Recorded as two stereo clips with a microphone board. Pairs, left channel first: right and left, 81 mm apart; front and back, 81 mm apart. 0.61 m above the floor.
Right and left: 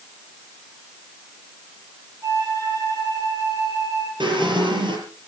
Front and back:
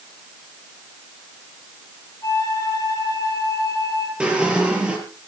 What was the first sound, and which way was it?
A flute, 45° left.